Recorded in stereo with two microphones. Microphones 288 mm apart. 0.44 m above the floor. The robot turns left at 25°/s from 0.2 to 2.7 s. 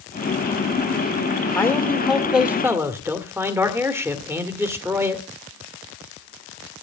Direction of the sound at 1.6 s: 10° left (ahead or behind).